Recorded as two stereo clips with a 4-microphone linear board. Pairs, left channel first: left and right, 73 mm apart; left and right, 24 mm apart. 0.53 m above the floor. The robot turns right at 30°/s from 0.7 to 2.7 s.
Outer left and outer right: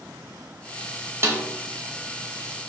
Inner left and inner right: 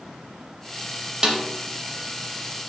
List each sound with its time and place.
1.2 s a snare drum: 35° right (ahead or behind), 0.5 m; by 1.5 s 30° right (ahead or behind), 0.5 m